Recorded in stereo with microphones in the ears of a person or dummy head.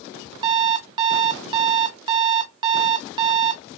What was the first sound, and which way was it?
An alarm clock, 25° right (ahead or behind).